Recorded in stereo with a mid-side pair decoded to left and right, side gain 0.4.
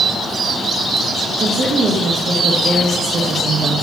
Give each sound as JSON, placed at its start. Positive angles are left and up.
{"t": 1.4, "sound": "a woman speaking", "azimuth_deg": -65, "distance_m": 1.3}